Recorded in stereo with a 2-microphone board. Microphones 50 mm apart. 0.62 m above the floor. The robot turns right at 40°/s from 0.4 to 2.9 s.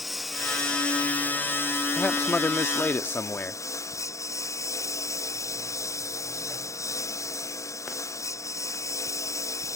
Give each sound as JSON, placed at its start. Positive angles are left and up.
{"t": 0.0, "sound": "a lawn mower", "azimuth_deg": -5}
{"t": 2.0, "sound": "a man speaking", "azimuth_deg": 40}